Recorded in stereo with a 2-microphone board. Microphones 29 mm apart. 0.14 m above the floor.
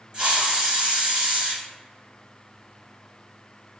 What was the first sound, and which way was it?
A hiss, 30° right (ahead or behind).